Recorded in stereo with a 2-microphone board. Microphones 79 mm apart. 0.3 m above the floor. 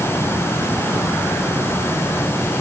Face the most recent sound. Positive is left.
No sound to turn to.